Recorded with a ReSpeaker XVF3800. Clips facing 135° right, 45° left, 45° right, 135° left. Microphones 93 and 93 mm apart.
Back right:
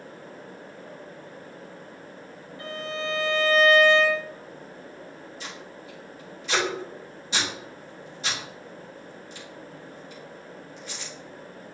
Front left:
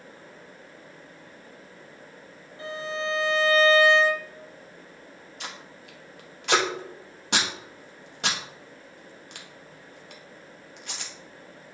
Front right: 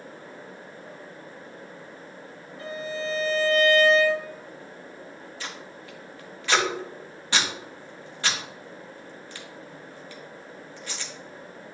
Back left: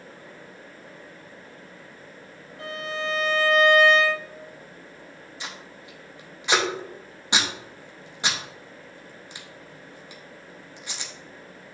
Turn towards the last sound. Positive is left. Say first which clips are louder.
# front left 2 dB, even
turn(degrees=65)